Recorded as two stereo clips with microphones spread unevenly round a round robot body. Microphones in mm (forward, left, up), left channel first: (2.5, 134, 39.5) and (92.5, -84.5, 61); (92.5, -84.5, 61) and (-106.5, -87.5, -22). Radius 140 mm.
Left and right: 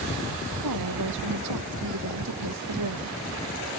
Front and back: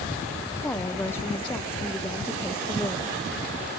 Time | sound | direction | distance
0.6 | a woman speaking | 75° right | ?